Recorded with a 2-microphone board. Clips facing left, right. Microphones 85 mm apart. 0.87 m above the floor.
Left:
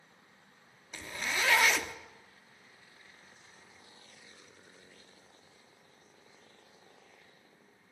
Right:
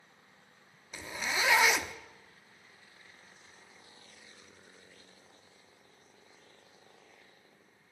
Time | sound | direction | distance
0.9 | a zipper | 10° right (ahead or behind) | 0.9 m